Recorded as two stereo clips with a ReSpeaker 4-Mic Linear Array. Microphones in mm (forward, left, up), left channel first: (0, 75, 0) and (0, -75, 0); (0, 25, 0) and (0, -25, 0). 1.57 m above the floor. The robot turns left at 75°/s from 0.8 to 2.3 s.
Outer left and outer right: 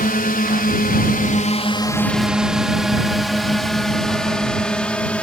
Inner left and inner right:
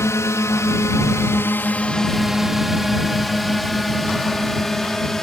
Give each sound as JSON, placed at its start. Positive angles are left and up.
{"t": 0.0, "sound": "a drone", "side_deg": 75}